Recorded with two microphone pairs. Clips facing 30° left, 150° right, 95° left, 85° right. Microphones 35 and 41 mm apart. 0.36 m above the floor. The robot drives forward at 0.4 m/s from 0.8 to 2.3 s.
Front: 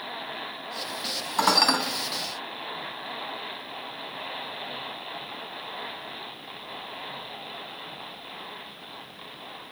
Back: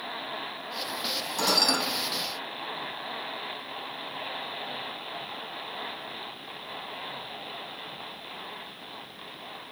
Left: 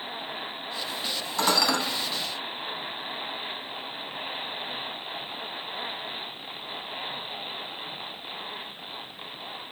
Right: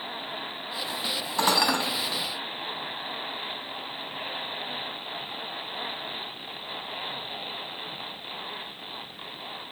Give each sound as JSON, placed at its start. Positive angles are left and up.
{"t": 1.4, "sound": "dishes clattering", "azimuth_deg": -20, "distance_m": 1.5}